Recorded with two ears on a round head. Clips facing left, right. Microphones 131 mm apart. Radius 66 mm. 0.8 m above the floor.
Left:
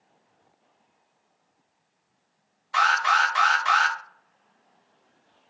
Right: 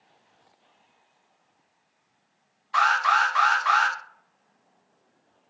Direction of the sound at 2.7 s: 25° left (ahead or behind).